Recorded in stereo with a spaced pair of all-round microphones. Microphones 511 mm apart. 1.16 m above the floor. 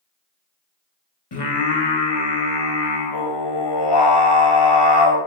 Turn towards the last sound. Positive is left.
turn(degrees=50)  # may be behind; listen again after turning